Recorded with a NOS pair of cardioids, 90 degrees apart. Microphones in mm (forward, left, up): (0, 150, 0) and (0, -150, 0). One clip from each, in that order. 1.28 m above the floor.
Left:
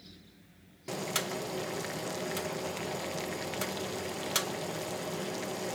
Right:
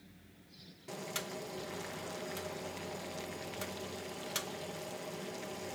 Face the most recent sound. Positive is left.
turn(degrees=35)